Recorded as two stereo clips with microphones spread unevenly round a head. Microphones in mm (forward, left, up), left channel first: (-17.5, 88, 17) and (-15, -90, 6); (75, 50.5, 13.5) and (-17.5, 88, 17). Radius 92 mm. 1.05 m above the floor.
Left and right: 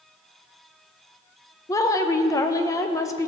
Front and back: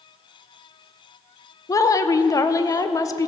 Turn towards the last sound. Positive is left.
turn(degrees=20)